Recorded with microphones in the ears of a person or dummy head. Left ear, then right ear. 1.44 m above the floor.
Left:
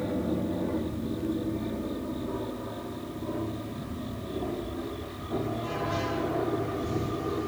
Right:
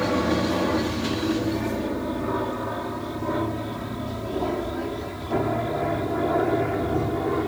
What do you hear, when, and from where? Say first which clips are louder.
0.0 s an aircraft: right 8 dB; 55° right (ahead or behind)